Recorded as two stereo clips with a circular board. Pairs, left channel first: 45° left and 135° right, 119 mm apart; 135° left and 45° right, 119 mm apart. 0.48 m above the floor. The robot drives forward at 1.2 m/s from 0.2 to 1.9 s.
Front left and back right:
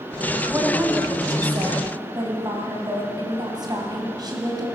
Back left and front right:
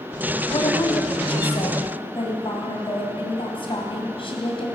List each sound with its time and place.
0.5 s a woman speaking: 160° left, 1.2 m; by 4.7 s 170° left, 2.5 m